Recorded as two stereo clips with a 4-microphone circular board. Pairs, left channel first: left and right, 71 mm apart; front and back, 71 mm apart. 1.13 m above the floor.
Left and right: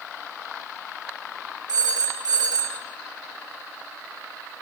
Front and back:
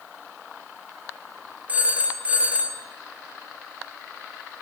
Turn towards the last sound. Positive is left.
turn(degrees=-110)